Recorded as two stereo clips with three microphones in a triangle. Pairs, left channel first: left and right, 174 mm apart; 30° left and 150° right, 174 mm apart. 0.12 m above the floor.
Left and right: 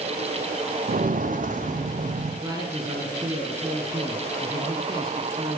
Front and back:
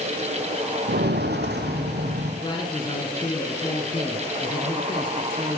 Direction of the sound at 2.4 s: 30° right.